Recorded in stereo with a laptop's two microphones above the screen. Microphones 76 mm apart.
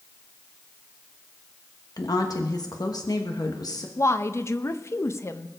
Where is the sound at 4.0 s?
35° left (ahead or behind), 0.5 m.